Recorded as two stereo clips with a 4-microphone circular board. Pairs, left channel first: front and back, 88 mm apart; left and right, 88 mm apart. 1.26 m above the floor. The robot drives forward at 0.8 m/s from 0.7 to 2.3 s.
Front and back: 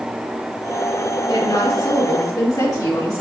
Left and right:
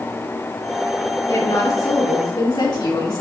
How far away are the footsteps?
No footsteps in this recording.